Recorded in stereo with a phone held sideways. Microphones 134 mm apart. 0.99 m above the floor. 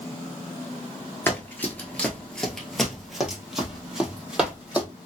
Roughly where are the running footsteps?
Centre.